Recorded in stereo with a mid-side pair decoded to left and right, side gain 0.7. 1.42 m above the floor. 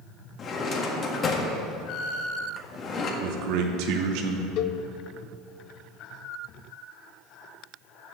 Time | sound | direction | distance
0.4 | a drawer | 35° left | 1.5 m
3.2 | a man speaking | 70° right | 1.4 m
4.6 | a cowbell | 55° left | 0.5 m